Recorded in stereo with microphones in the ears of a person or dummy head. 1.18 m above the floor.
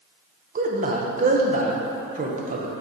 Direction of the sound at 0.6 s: 40° right (ahead or behind).